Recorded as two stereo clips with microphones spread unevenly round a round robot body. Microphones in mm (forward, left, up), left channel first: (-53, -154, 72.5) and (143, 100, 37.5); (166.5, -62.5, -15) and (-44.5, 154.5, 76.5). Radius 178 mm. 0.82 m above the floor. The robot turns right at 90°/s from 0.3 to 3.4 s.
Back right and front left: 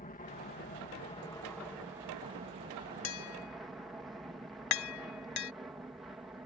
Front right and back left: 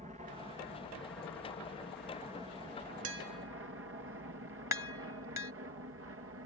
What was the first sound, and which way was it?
An aircraft, 150° right.